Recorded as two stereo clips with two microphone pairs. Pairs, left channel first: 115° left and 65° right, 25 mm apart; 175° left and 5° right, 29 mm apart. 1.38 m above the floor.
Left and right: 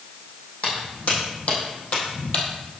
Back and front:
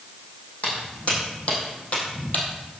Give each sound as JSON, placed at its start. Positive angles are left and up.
{"t": 0.6, "sound": "footsteps", "azimuth_deg": 140, "distance_m": 3.5}